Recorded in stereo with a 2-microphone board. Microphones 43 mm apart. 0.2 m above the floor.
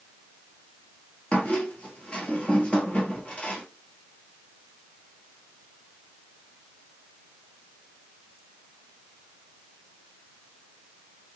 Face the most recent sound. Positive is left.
turn(degrees=30)  # may be behind; listen again after turning